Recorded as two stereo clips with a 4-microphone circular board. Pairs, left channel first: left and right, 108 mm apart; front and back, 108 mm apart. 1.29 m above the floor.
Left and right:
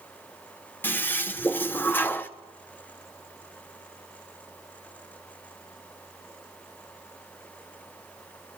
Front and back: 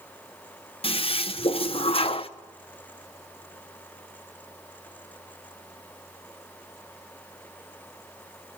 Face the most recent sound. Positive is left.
turn(degrees=20)